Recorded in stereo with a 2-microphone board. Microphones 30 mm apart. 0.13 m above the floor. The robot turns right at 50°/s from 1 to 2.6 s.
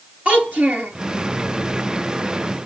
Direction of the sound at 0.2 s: 55° right (ahead or behind).